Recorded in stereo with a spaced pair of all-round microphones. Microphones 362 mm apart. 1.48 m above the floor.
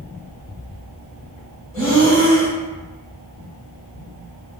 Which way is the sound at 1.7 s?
25° right (ahead or behind).